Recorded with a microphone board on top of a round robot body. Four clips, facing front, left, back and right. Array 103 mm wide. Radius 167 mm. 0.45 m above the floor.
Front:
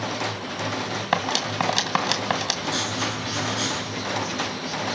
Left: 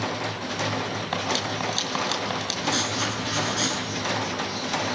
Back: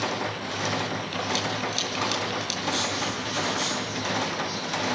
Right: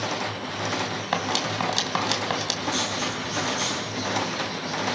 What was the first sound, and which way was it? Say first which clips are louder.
Cutlery clinking: right 2 dB, front 8 dB; 10° right.